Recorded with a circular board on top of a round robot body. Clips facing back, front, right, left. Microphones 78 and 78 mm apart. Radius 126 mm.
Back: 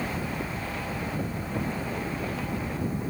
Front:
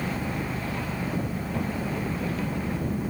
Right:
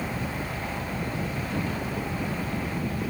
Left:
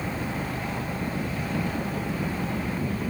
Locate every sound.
0.0 s an engine running: 35° left